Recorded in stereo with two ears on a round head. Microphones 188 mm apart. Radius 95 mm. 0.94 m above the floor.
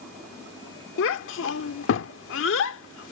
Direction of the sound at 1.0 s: 70° left (ahead or behind).